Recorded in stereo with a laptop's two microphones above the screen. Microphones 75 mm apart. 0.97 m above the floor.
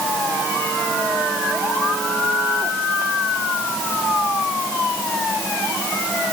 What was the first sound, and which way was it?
Only background noise.